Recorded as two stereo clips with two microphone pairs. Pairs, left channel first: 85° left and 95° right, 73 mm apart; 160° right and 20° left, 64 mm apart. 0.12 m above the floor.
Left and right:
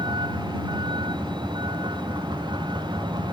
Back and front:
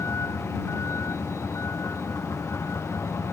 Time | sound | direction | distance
0.0 | a vehicle | 110° right | ?